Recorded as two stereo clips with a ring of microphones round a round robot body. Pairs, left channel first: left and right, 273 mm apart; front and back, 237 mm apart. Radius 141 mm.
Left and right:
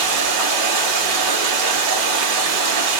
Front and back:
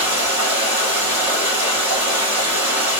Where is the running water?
100° right, 1.8 m.